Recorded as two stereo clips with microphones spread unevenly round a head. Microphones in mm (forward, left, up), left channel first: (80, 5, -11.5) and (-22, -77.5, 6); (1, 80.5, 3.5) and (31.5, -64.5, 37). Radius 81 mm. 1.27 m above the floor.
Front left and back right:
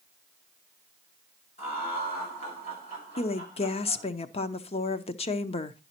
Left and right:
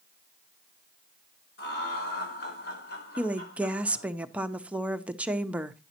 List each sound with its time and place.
1.6 s laughter: 95° left, 4 m; by 4.1 s 90° left, 6.5 m
3.2 s a woman speaking: 10° left, 0.7 m